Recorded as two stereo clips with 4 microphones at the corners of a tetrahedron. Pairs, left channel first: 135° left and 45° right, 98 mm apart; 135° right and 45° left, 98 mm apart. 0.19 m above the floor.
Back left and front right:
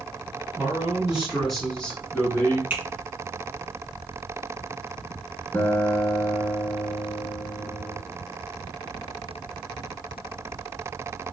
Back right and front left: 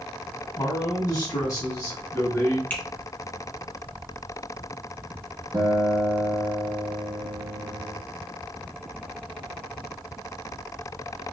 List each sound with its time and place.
0.6 s a man speaking: 110° right, 1.4 m; by 2.6 s 170° left, 1.2 m
2.7 s a finger snap: 85° right, 0.9 m
5.5 s a guitar: 75° left, 0.6 m